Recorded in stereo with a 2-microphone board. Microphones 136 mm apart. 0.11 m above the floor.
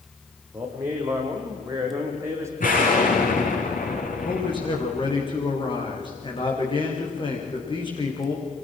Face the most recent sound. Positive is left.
turn(degrees=35)  # may be behind; listen again after turning